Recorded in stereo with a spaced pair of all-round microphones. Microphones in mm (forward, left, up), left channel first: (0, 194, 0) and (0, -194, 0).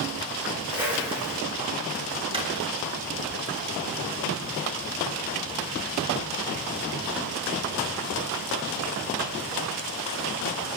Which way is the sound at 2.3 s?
15° right (ahead or behind).